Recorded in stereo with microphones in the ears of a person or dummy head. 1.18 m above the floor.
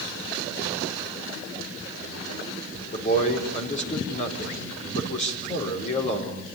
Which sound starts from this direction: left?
A man speaking, at 2.9 s.